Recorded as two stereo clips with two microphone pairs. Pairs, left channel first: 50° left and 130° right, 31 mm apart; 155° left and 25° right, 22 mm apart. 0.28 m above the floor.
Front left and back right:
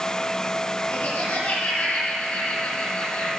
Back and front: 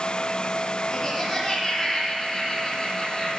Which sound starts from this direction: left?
Laughter, at 0.9 s.